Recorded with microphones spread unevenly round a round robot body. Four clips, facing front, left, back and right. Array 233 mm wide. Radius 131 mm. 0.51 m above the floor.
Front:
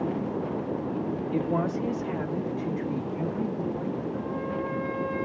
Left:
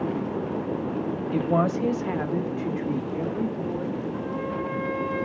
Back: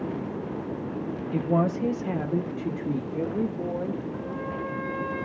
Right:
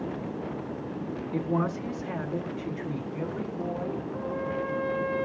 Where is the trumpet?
160° left, 5.5 m.